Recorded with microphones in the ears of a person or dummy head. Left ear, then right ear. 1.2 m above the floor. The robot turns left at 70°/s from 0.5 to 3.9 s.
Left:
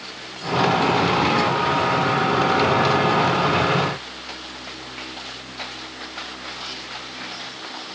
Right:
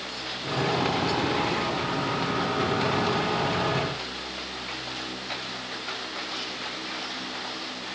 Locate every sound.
Only background noise.